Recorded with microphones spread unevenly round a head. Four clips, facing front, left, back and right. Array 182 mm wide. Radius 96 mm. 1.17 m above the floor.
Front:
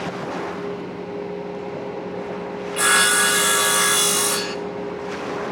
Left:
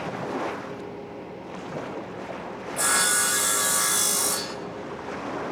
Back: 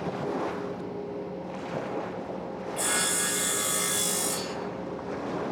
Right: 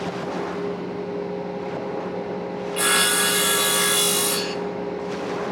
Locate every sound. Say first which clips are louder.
2.8 s sawing: right 3 dB, front 13 dB; 15° right, 1.6 m